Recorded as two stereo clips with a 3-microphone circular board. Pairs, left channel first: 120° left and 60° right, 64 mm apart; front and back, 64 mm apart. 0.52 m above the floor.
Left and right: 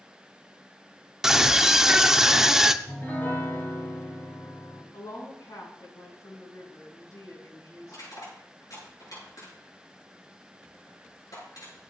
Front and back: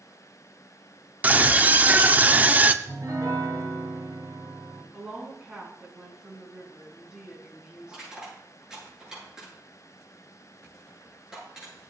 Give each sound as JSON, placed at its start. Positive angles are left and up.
{"t": 1.2, "sound": "a scream", "azimuth_deg": -135, "distance_m": 0.8}
{"t": 2.8, "sound": "a piano", "azimuth_deg": 175, "distance_m": 3.5}
{"t": 4.9, "sound": "a woman speaking", "azimuth_deg": 105, "distance_m": 6.5}
{"t": 7.9, "sound": "crushing", "azimuth_deg": 105, "distance_m": 9.0}